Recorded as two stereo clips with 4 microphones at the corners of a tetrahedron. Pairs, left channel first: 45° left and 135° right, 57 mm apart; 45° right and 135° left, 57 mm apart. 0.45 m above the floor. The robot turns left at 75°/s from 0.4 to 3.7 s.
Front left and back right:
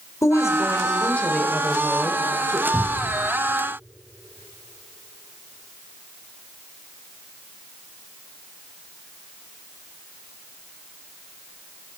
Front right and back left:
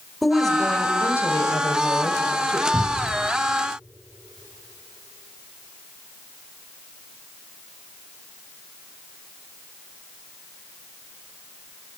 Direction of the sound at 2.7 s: 135° left.